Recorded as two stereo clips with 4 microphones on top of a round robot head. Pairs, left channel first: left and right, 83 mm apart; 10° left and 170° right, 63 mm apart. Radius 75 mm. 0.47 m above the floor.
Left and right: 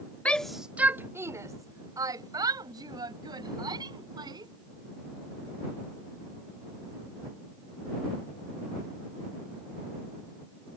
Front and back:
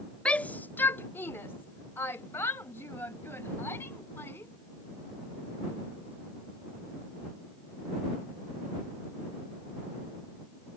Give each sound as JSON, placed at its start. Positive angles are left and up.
{"t": 0.2, "sound": "a shout", "azimuth_deg": 45}